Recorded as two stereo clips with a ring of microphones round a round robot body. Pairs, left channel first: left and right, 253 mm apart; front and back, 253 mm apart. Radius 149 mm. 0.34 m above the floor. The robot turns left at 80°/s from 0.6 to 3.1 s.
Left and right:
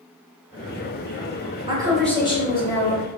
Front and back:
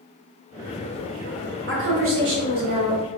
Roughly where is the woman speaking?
Behind right.